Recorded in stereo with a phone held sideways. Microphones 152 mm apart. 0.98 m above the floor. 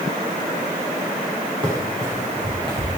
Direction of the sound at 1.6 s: 35° right (ahead or behind).